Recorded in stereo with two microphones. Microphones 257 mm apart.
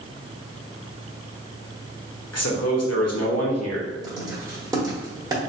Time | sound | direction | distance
2.3 | a man speaking | 75° left (ahead or behind) | 1.1 m
4.0 | writing | 15° right (ahead or behind) | 1.1 m